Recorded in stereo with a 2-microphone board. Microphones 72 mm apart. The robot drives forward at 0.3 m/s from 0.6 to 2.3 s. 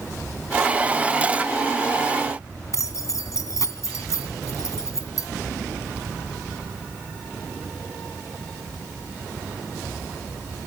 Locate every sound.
2.7 s keys jangling: 50° left (ahead or behind), 2.5 m